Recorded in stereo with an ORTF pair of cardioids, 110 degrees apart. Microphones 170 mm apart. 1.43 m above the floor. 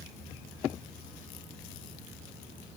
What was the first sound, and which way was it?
Only background noise.